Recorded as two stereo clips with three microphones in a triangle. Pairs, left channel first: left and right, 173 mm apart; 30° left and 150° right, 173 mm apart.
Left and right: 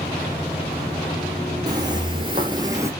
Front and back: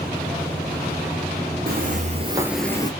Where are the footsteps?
155° right, 1.0 m; by 2.9 s 25° right, 0.7 m.